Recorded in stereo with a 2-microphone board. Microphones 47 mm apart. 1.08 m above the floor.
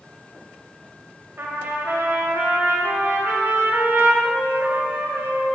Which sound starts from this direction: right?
A trumpet, at 1.4 s.